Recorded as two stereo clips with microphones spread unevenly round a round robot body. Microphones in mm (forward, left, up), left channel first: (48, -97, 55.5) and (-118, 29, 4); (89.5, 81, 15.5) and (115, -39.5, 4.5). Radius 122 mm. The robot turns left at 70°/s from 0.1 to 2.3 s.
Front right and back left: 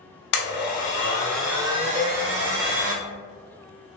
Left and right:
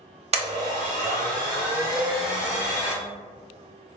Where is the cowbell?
160° right, 1.1 m; by 2.2 s 175° right, 1.1 m.